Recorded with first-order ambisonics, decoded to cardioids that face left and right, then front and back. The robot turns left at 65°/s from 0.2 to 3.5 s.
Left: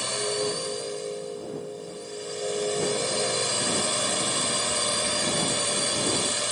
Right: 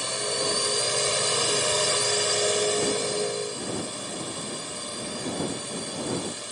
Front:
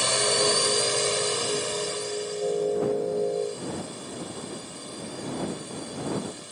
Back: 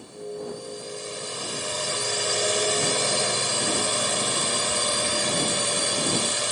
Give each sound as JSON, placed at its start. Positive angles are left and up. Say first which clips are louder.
{"t": 0.0, "sound": "a drone", "louder": "even, front 13 dB", "azimuth_deg": 0}